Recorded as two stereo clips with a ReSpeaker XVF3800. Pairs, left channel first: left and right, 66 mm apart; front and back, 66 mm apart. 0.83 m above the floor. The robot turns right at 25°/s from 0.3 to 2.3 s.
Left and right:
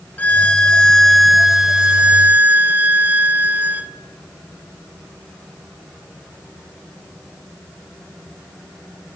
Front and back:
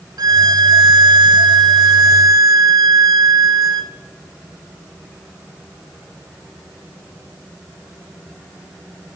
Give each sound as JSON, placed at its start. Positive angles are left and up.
{"t": 0.2, "sound": "a violin", "azimuth_deg": 155, "distance_m": 1.4}